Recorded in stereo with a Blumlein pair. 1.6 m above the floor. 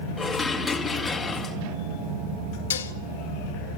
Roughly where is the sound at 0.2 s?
Ahead.